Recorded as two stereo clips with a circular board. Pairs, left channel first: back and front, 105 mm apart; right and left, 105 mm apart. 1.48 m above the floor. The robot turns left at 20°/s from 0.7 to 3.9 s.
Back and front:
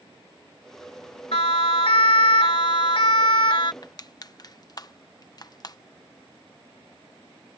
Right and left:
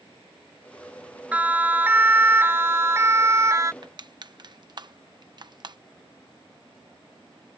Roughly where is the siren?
Behind.